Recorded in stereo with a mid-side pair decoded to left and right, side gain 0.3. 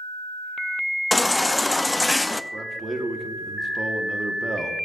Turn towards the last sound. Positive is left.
turn(degrees=-35)